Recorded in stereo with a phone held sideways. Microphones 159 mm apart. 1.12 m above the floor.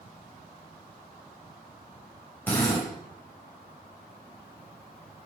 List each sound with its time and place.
2.5 s a drill: 10° left (ahead or behind), 6.5 m